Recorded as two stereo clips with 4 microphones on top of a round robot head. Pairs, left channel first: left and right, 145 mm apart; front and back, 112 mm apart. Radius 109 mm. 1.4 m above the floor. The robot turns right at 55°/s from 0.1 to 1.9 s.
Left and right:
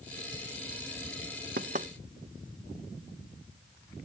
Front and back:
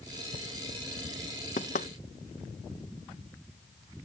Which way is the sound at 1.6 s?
45° right.